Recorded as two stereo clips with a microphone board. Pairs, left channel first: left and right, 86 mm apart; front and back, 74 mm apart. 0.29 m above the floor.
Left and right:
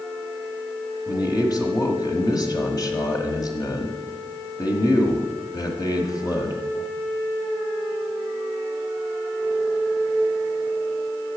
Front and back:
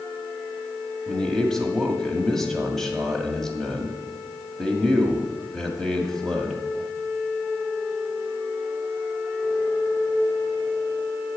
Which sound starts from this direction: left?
A man speaking, at 1.1 s.